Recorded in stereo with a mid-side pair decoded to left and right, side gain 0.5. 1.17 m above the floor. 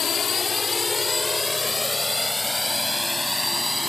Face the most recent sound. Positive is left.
turn(degrees=10)